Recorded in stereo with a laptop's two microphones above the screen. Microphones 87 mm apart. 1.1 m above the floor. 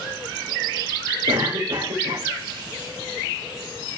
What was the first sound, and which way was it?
A cough, 80° right.